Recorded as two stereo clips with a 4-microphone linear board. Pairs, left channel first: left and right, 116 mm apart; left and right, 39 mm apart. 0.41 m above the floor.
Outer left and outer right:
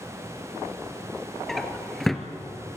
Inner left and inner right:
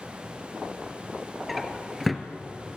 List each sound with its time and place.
1.5 s a drawer: centre (ahead or behind), 1.6 m